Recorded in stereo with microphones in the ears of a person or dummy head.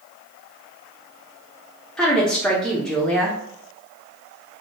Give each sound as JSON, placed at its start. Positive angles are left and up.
{"t": 2.0, "sound": "a woman speaking", "side_deg": 0, "distance_m": 0.6}